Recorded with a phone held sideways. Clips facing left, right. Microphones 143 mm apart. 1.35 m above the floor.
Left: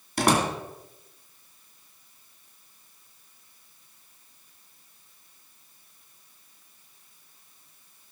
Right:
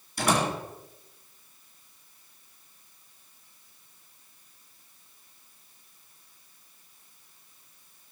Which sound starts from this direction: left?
A door slam, at 0.2 s.